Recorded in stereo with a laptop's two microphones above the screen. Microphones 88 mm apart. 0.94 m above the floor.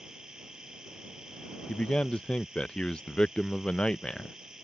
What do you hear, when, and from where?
0.0 s a machine running: 10° right (ahead or behind)
1.7 s a man speaking: 10° left (ahead or behind)